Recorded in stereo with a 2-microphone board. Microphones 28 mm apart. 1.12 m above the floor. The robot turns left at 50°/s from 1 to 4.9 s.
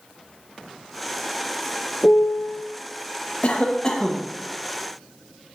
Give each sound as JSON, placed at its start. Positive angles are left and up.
{"t": 2.0, "sound": "a piano", "azimuth_deg": 105, "distance_m": 0.5}
{"t": 3.4, "sound": "a cough", "azimuth_deg": 45, "distance_m": 1.1}